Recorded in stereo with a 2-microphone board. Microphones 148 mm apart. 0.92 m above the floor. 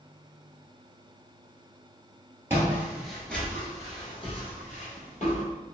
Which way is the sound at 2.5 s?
15° right (ahead or behind).